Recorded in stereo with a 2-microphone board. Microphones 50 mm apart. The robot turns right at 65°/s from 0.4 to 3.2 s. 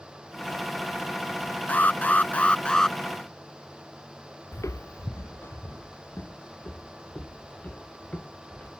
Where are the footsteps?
80° left; by 8.7 s 35° left (ahead or behind).